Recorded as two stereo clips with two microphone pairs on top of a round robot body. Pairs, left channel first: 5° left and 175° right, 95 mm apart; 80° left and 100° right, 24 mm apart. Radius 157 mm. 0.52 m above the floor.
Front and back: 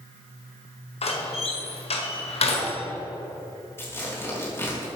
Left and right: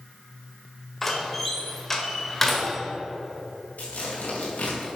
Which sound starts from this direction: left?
Tearing paper, at 3.8 s.